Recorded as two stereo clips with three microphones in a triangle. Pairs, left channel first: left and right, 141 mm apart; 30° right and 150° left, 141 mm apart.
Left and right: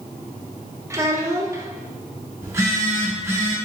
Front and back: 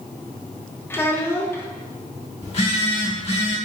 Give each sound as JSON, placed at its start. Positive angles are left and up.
{"t": 0.9, "sound": "a child speaking", "azimuth_deg": -70, "distance_m": 0.7}
{"t": 2.4, "sound": "a phone buzzing", "azimuth_deg": -25, "distance_m": 1.0}